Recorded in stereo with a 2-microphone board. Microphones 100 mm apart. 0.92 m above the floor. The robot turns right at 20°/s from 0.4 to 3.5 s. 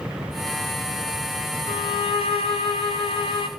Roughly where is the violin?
Left.